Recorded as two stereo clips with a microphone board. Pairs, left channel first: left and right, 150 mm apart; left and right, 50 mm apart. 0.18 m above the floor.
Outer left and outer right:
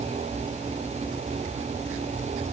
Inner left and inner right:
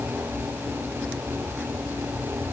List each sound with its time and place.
Only background noise.